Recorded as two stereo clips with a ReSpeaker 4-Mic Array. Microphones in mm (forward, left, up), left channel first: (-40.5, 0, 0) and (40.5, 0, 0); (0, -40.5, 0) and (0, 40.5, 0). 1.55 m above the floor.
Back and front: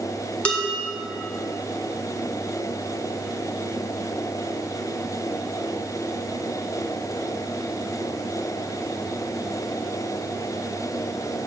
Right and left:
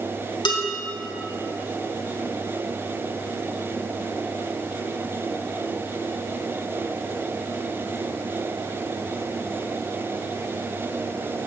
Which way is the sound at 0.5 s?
105° right.